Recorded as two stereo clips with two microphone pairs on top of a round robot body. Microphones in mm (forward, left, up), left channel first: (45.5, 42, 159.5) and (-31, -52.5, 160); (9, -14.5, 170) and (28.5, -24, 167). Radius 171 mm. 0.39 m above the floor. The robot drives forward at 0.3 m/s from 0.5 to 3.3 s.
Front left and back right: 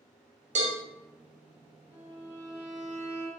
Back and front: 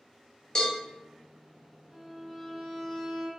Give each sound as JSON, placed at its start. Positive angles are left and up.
{"t": 0.6, "sound": "a cowbell", "azimuth_deg": -140, "distance_m": 0.8}
{"t": 1.9, "sound": "a violin", "azimuth_deg": -105, "distance_m": 1.4}